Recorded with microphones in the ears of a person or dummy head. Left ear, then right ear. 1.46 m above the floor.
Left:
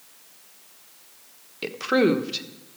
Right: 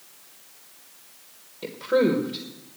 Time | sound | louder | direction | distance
1.6 | a woman speaking | left 1 dB | 50° left (ahead or behind) | 1.1 m